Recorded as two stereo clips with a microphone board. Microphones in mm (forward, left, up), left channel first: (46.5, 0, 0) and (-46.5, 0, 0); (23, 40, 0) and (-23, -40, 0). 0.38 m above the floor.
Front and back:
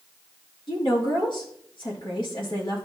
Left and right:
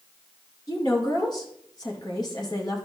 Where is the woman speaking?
20° left, 5 m.